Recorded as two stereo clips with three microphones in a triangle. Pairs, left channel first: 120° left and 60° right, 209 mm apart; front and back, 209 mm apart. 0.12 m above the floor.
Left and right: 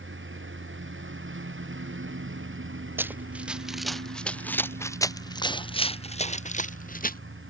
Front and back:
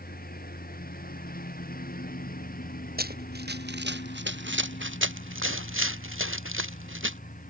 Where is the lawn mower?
45° right.